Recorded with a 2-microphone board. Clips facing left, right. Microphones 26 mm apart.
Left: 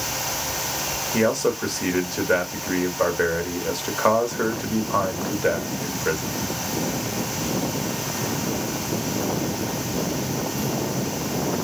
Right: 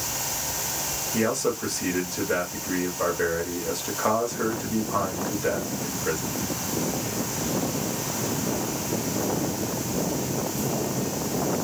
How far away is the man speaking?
About 1.4 m.